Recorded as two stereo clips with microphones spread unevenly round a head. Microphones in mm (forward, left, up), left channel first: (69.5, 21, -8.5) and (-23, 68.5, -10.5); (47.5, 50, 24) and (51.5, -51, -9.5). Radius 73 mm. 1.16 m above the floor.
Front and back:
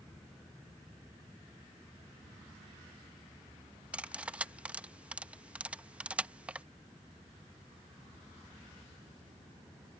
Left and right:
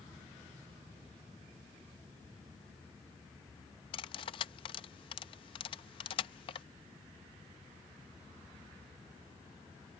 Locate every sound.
3.9 s cutlery clinking: 75° left